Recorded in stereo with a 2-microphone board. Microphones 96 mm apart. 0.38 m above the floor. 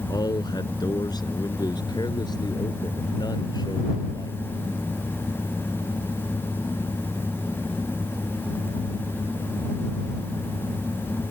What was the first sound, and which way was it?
A man speaking, 45° left (ahead or behind).